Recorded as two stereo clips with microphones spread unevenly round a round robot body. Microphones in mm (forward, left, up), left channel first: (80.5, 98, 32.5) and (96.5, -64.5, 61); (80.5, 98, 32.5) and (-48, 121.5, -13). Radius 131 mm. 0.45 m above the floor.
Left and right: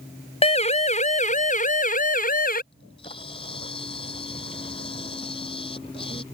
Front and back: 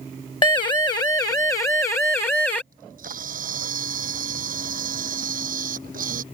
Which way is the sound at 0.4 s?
50° left.